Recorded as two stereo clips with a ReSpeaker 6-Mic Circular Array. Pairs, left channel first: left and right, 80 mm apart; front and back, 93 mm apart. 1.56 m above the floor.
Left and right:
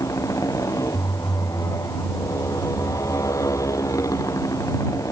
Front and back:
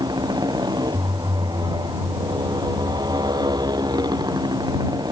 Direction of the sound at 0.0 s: 140° left.